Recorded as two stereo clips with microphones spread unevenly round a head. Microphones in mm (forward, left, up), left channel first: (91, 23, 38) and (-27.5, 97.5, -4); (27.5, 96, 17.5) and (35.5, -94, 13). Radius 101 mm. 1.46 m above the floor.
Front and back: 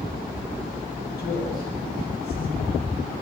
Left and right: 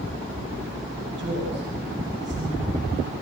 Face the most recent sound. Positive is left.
turn(degrees=-65)